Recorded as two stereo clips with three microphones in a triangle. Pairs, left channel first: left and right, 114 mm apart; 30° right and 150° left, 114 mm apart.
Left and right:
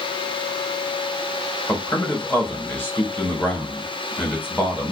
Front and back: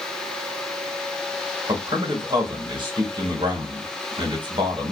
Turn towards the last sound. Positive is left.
turn(degrees=155)